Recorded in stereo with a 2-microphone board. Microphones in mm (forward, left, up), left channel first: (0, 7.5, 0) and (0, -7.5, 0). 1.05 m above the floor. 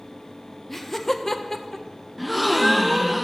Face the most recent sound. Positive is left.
turn(degrees=5)  # may be behind; listen again after turning